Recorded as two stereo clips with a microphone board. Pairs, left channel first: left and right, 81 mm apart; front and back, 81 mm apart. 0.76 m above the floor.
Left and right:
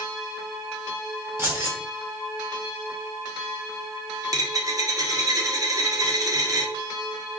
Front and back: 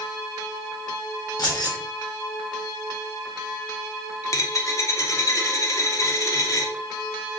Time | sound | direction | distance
1.4 | keys jangling | 35° right | 1.4 m
4.2 | a dropped coin | 45° right | 0.6 m